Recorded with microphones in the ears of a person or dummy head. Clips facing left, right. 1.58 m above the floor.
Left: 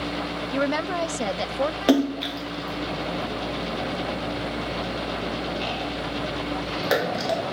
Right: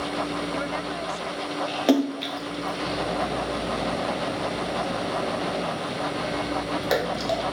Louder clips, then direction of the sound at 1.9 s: Even; 5° left (ahead or behind).